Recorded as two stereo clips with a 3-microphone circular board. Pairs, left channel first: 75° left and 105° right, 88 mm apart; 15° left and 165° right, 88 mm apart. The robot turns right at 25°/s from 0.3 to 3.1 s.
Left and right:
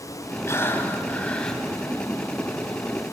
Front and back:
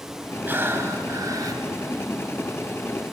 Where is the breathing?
130° left, 1.3 m; by 1.6 s 160° left, 1.3 m.